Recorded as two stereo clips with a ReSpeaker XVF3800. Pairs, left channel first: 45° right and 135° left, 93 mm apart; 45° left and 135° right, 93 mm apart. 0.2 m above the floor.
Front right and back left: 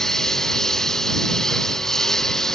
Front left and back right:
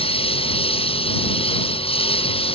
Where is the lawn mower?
40° left.